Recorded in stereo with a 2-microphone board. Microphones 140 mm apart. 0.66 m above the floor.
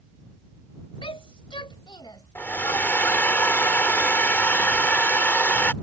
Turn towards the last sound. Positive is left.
turn(degrees=15)  # may be behind; listen again after turning